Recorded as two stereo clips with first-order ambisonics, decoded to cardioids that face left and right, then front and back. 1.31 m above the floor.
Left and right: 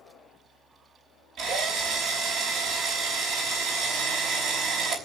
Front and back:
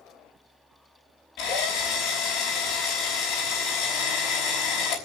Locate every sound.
1.4 s a drill: 50° right, 5.5 m